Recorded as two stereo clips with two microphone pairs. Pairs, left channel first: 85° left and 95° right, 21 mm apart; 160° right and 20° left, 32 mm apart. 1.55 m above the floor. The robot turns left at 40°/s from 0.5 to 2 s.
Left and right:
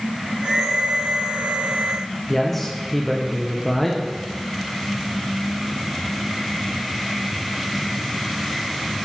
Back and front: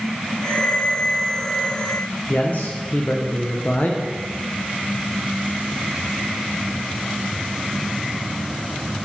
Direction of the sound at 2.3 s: 170° left.